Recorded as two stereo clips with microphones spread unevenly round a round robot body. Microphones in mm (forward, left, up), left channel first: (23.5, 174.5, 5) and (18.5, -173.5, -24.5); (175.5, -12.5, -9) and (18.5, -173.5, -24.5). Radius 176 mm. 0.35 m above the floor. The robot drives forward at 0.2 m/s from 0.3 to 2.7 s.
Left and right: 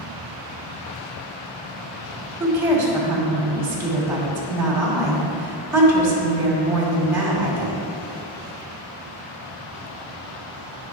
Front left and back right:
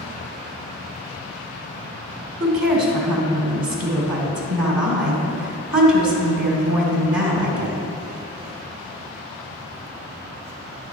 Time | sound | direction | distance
2.4 | a woman speaking | 175° right | 1.6 m